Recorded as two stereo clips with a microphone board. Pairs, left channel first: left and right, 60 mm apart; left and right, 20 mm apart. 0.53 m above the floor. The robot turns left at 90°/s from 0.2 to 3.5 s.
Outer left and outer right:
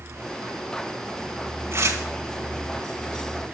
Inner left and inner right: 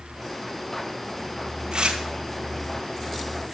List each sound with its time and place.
1.7 s tearing paper: 45° right (ahead or behind), 1.7 m; by 2.0 s 70° right (ahead or behind), 1.7 m